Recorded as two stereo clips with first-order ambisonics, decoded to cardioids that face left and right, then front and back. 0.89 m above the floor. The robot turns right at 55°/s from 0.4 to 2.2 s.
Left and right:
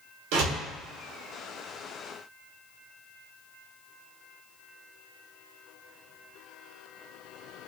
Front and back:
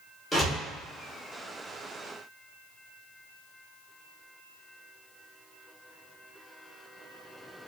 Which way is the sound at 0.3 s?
90° right.